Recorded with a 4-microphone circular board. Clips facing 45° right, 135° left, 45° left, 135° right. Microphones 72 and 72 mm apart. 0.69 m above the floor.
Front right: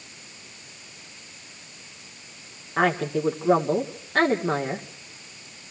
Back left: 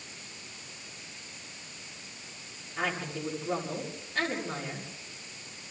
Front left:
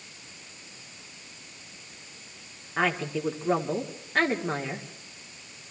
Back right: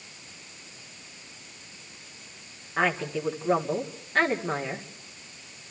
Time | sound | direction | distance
2.8 | a woman speaking | 40° right | 2 m